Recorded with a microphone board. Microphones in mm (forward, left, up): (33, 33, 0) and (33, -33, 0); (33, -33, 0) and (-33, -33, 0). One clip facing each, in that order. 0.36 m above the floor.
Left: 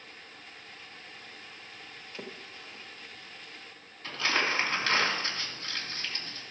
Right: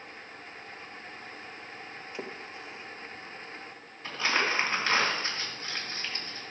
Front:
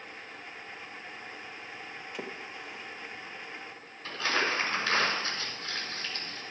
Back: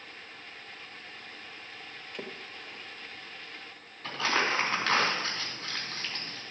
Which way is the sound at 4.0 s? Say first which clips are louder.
Right 1 dB, back 1 dB; 165° right.